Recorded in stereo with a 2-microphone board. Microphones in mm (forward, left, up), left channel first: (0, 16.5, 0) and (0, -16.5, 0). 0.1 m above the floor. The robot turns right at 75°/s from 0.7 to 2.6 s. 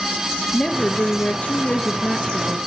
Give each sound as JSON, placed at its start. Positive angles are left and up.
{"t": 0.5, "sound": "a woman speaking", "azimuth_deg": 40, "distance_m": 1.7}